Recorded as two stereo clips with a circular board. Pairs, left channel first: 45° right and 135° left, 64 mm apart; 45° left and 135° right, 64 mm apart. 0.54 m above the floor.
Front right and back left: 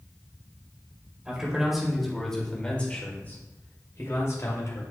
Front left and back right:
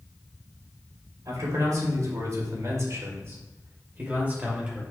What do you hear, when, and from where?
1.2 s a man speaking: 150° right, 2.5 m; by 4.8 s 65° right, 2.5 m